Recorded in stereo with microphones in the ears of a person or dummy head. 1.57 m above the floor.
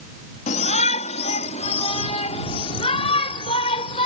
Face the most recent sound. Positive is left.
turn(degrees=30)  # may be behind; listen again after turning